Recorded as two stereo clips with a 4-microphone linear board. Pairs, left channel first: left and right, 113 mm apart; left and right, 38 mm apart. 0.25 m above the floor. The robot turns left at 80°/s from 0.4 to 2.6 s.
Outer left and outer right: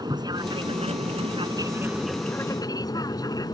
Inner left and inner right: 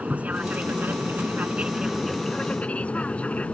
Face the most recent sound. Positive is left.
turn(degrees=140)